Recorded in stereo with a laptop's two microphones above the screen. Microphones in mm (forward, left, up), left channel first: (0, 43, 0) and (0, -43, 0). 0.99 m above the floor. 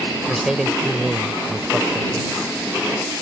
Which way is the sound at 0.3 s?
5° right (ahead or behind).